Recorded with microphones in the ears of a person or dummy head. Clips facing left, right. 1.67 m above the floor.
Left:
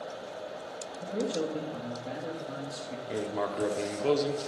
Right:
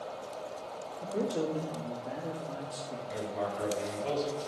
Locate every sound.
1.0 s a man speaking: 25° left (ahead or behind), 1.9 m
3.1 s writing: 65° left (ahead or behind), 1.1 m